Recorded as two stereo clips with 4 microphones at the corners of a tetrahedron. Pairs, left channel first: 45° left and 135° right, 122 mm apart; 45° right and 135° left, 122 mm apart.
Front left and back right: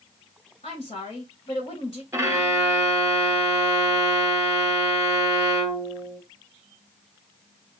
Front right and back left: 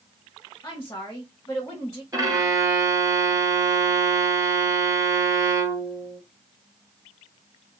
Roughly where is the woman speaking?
Ahead left.